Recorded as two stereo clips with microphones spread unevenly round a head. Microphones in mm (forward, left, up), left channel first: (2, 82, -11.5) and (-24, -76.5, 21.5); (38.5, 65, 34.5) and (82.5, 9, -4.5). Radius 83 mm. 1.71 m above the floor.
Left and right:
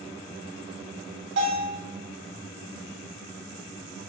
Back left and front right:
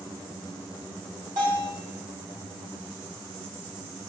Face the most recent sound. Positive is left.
turn(degrees=-90)